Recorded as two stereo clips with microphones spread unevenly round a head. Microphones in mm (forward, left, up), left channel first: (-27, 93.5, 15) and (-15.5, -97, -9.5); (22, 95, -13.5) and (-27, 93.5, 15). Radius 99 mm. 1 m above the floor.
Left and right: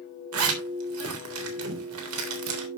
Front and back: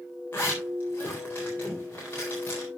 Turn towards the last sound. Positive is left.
turn(degrees=-75)